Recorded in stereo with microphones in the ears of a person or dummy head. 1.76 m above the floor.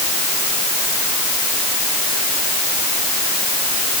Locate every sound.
Only background noise.